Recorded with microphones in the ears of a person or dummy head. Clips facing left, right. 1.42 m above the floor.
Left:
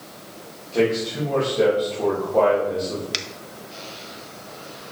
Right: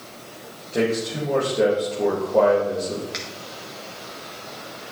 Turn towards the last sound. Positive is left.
turn(degrees=50)  # may be behind; listen again after turning